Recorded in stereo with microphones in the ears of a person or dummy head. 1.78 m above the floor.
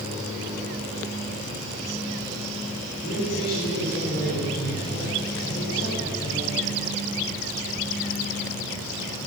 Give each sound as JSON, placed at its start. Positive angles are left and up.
{"t": 3.0, "sound": "a man speaking", "side_deg": 55, "distance_m": 7.5}